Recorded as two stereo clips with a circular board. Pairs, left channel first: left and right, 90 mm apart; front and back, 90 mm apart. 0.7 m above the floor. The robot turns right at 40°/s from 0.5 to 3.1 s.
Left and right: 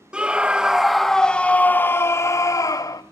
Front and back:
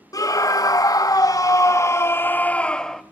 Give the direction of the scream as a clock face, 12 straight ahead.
1 o'clock.